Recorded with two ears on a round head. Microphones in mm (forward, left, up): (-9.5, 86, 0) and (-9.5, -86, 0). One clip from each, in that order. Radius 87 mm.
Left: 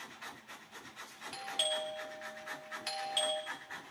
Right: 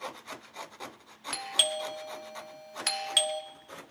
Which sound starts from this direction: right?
A doorbell, at 1.3 s.